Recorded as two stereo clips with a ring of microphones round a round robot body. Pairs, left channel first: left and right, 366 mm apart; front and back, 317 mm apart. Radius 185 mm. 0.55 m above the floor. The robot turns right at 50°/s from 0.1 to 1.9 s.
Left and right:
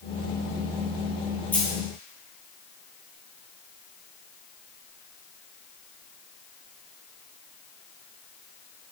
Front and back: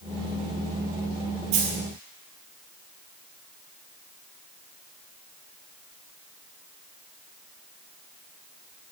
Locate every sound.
1.5 s a dropped coin: 175° left, 2.5 m; by 1.8 s 170° right, 2.5 m